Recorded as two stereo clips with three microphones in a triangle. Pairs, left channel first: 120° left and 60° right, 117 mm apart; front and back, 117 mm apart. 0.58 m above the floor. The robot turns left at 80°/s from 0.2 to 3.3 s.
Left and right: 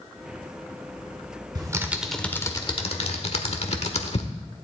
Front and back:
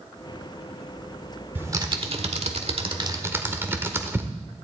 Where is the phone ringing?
No phone ringing in this recording.